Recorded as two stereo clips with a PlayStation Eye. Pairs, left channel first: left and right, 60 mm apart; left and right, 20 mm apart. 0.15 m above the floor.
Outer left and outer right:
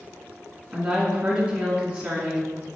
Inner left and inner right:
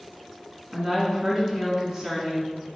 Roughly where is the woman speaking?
Right.